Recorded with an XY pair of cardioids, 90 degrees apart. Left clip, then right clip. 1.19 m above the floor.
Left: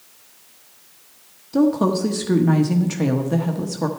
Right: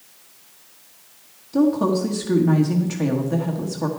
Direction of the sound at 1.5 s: 30° left.